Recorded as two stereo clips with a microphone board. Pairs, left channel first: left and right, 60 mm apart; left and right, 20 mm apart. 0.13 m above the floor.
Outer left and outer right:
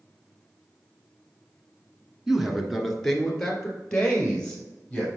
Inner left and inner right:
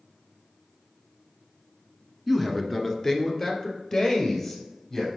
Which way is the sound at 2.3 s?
5° right (ahead or behind).